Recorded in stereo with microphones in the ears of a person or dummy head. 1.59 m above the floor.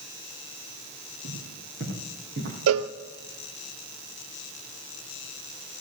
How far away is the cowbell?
About 0.6 m.